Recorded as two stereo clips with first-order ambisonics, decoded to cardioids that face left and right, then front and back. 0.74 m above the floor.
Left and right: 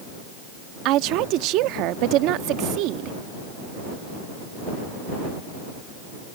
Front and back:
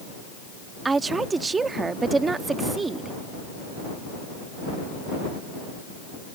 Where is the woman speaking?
105° right.